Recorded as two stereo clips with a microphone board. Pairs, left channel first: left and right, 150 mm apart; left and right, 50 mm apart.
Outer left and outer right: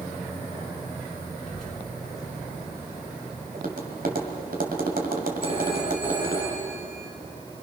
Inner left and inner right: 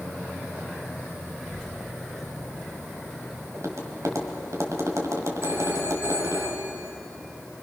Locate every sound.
1.5 s a child speaking: 5° left (ahead or behind), 5 m; by 3.4 s 10° right (ahead or behind), 7 m
3.5 s tapping: 70° right (ahead or behind), 3 m
5.4 s a phone ringing: 40° right (ahead or behind), 6.5 m